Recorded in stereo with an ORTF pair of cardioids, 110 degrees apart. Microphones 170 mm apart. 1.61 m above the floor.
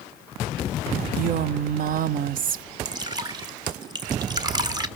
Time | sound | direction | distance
1.2 | a woman speaking | 55° right | 0.8 m
2.9 | dripping | 25° right | 1.6 m